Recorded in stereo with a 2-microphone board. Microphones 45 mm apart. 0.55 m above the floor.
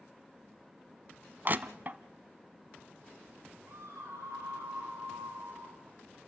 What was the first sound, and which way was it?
Crushing, 40° right (ahead or behind).